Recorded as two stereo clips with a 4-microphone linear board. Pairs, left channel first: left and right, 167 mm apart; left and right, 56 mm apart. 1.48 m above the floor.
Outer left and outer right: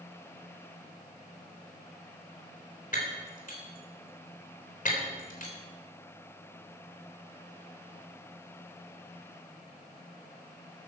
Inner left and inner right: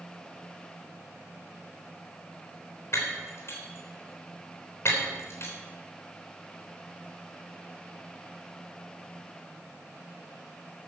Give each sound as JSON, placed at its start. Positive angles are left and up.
{"t": 2.9, "sound": "breaking glass", "side_deg": 55, "distance_m": 3.5}